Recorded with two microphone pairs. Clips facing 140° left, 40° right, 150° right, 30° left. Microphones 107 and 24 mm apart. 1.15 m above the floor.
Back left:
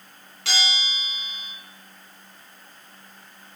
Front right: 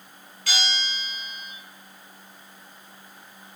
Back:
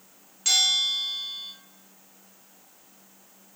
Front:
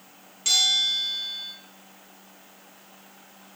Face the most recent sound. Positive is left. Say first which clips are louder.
# back left 1 dB, front 1 dB
turn(degrees=130)